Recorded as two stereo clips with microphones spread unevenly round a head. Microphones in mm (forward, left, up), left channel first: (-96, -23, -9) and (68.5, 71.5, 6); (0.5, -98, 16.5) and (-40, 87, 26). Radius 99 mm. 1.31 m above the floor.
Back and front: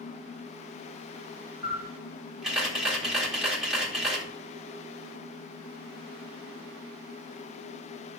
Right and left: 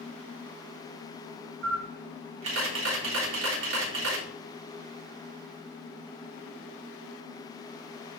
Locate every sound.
1.6 s a camera shutter: 115° left, 4 m